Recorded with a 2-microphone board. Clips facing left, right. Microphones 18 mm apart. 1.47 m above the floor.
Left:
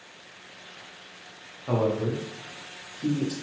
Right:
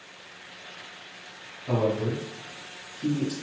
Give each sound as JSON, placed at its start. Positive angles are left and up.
{"t": 1.7, "sound": "a man speaking", "side_deg": 45, "distance_m": 1.0}